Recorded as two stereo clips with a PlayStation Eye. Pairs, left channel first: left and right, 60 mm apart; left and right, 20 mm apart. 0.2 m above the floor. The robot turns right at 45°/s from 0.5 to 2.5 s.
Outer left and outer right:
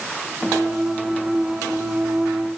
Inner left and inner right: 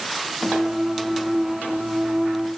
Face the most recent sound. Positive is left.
No sound to turn to.